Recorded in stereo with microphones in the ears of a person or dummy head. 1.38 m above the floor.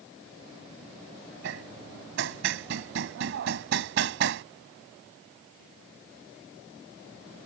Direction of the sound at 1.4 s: 65° right (ahead or behind).